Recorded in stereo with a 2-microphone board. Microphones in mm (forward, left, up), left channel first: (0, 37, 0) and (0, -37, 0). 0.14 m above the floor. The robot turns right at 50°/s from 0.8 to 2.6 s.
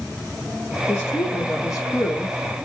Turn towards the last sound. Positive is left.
turn(degrees=140)